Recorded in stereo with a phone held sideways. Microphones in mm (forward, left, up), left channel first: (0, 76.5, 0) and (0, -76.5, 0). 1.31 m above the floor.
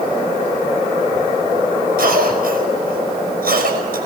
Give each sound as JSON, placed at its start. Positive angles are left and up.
{"t": 2.0, "sound": "a cough", "side_deg": -80, "distance_m": 5.5}